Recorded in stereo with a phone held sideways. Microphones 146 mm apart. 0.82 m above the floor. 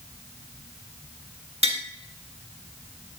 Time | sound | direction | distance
1.6 | tapping | 45° right (ahead or behind) | 1.4 m